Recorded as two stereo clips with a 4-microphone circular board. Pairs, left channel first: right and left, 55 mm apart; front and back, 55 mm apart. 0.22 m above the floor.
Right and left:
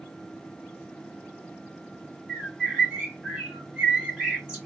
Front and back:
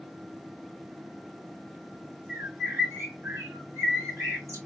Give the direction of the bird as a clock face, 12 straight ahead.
6 o'clock.